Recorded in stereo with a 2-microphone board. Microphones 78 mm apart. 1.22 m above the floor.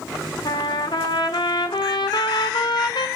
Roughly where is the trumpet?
Left.